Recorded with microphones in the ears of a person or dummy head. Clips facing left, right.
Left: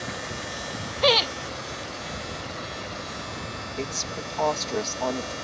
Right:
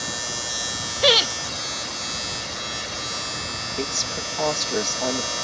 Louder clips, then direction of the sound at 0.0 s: Even; 75° right (ahead or behind).